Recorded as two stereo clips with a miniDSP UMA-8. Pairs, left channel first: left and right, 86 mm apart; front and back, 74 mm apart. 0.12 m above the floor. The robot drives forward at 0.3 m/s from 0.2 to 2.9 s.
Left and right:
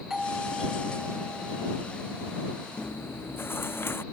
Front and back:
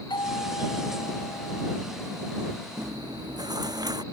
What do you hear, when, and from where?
0.1 s a doorbell: 5° right
2.8 s chewing: 155° left